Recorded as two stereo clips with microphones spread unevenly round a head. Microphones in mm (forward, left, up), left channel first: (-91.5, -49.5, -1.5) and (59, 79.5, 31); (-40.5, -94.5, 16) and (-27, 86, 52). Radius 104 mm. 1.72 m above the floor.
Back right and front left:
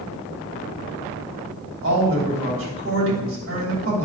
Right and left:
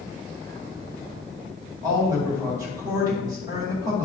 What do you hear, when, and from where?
1.8 s a woman speaking: 10° left, 3.5 m